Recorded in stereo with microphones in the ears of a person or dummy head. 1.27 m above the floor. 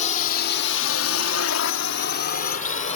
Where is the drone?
45° left (ahead or behind); by 3.0 s 35° left (ahead or behind).